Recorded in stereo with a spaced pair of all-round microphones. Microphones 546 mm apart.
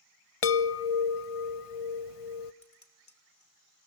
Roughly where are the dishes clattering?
Left.